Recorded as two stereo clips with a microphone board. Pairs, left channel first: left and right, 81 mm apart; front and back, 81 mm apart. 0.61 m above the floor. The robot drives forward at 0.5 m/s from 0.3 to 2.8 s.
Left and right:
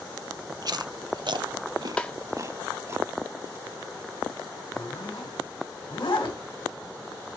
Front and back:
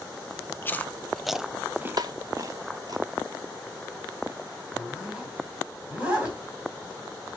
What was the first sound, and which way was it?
Chewing, 60° right.